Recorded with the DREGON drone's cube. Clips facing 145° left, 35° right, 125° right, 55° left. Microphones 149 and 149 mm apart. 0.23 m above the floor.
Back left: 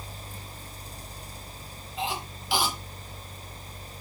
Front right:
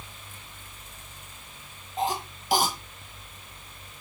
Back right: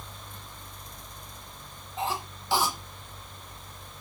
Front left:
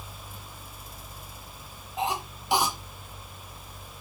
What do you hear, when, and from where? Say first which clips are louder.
2.0 s a cough: front right 4 dB, front left 2 dB; 10° right, 2.0 m